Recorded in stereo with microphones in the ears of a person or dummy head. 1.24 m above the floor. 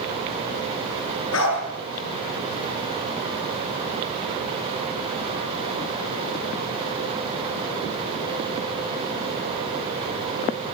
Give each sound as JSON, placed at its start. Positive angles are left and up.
{"t": 1.3, "sound": "a dog barking", "side_deg": 80, "distance_m": 9.5}